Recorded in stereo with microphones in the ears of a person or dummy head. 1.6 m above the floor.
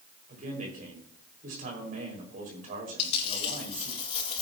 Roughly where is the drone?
No drone in this recording.